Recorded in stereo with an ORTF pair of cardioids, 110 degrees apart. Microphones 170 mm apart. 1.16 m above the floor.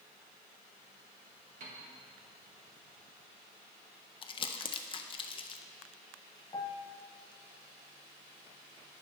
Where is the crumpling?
30° left, 0.7 m.